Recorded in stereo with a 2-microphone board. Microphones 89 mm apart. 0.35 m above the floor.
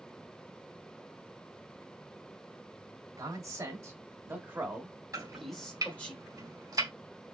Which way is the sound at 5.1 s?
40° right (ahead or behind).